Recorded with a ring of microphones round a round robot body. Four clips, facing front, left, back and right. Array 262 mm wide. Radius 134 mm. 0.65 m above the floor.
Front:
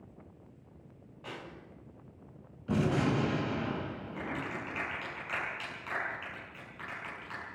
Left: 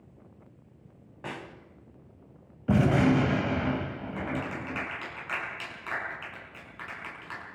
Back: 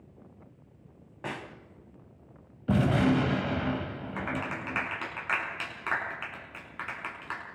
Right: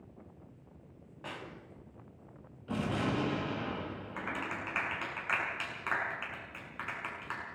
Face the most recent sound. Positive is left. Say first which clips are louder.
# left 5 dB, back 5 dB
turn(degrees=-160)